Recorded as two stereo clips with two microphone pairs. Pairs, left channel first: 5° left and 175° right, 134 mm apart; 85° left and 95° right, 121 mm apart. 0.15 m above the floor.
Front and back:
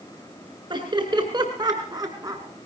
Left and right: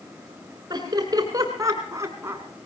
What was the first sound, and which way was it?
Laughter, 140° right.